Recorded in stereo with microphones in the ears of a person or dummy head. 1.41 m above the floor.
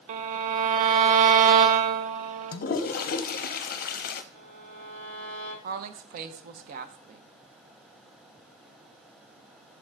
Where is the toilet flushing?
40° left (ahead or behind), 0.6 m.